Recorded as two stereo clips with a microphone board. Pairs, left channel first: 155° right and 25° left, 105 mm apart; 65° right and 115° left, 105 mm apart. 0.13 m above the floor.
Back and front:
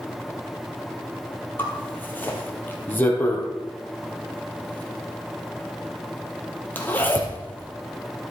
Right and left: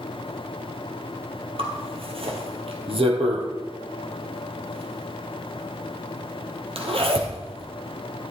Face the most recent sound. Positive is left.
turn(degrees=130)